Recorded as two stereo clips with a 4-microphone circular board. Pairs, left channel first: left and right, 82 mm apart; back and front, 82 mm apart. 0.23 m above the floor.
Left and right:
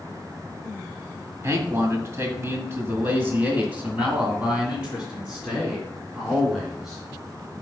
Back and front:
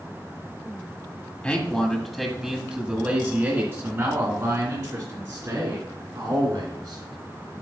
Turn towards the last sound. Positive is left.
turn(degrees=0)